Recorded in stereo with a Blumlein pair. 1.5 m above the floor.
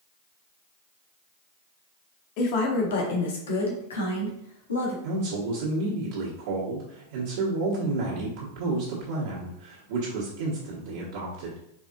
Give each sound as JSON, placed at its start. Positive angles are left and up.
{"t": 2.4, "sound": "a woman speaking", "azimuth_deg": 45, "distance_m": 1.3}
{"t": 5.0, "sound": "a man speaking", "azimuth_deg": -50, "distance_m": 1.4}